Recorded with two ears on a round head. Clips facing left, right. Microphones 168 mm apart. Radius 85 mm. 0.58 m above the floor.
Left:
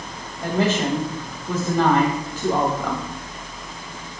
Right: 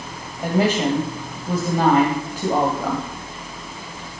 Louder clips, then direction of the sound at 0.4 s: Right 2 dB; 10° right (ahead or behind).